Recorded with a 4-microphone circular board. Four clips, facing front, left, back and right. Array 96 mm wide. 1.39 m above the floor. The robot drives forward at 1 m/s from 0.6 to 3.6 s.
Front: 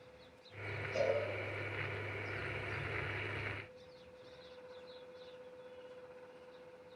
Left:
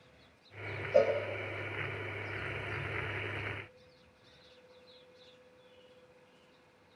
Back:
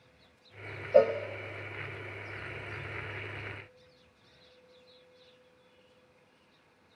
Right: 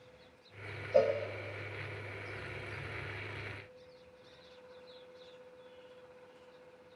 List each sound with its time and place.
0.9 s a cowbell: straight behind, 0.7 m